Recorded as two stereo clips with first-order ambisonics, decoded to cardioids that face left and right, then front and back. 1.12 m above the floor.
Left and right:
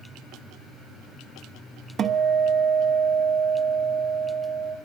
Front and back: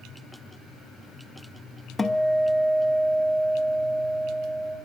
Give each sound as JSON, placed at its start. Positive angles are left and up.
{"t": 2.0, "sound": "a guitar", "azimuth_deg": -75, "distance_m": 0.7}